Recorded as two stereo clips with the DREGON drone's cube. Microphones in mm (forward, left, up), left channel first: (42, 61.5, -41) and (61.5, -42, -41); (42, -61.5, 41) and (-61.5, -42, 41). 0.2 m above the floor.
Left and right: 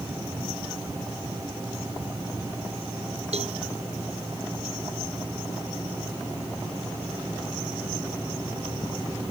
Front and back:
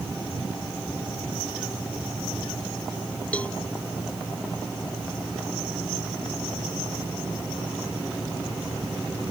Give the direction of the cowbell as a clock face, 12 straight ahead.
3 o'clock.